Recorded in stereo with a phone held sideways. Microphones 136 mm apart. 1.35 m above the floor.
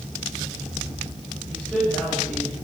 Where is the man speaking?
5° right (ahead or behind), 7.5 m; by 2.5 s centre (ahead or behind), 8.5 m.